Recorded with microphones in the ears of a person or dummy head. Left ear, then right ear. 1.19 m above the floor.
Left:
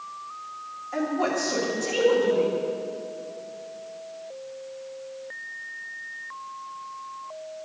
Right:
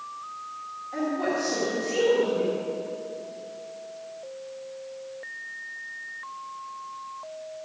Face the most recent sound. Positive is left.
turn(degrees=40)  # may be behind; listen again after turning